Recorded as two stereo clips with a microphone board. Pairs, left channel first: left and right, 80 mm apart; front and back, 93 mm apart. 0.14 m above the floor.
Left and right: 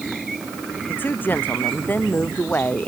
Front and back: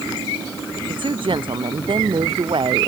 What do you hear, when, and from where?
0.9 s a woman speaking: 155° left